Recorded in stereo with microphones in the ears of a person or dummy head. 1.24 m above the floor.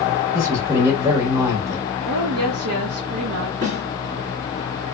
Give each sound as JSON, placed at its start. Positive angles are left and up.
{"t": 0.3, "sound": "a man speaking", "side_deg": -15, "distance_m": 1.1}
{"t": 2.0, "sound": "a woman speaking", "side_deg": -70, "distance_m": 0.6}
{"t": 3.6, "sound": "a snare drum", "side_deg": -65, "distance_m": 2.0}